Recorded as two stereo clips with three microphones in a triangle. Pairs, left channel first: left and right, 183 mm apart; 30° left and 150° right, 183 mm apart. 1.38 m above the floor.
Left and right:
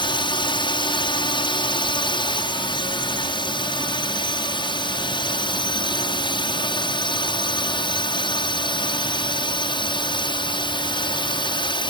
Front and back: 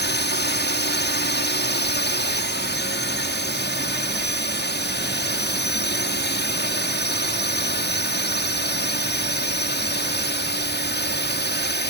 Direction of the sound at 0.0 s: 30° left.